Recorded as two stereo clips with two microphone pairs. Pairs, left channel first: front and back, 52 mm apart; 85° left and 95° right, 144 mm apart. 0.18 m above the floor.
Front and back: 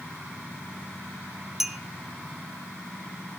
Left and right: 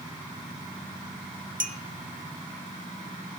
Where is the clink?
95° right, 1.5 m.